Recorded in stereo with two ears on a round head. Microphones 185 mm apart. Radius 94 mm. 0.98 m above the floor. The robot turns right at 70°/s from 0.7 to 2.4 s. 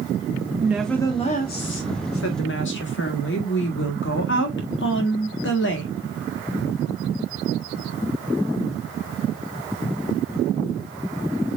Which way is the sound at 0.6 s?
10° right.